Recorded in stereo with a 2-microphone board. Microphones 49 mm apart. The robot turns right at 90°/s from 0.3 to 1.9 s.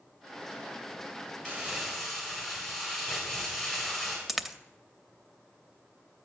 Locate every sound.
1.4 s crumpling: 40° right, 4 m; by 4.2 s straight ahead, 4 m
4.3 s a dropped coin: centre (ahead or behind), 0.6 m